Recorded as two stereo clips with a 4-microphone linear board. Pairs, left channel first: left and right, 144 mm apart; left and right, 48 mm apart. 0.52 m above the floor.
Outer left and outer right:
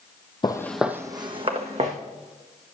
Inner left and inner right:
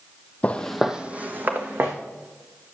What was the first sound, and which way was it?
Footsteps, 35° left (ahead or behind).